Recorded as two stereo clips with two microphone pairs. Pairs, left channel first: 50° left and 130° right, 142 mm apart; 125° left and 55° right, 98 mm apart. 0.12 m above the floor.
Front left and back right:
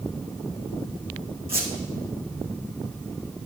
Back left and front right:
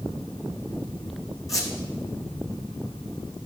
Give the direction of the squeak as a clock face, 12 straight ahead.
6 o'clock.